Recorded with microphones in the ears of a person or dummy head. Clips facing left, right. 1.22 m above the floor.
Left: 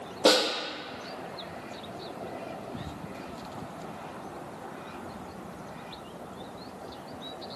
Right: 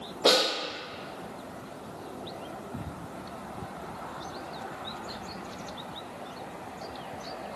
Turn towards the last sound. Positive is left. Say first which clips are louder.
# left 1 dB
turn(degrees=25)  # may be behind; listen again after turning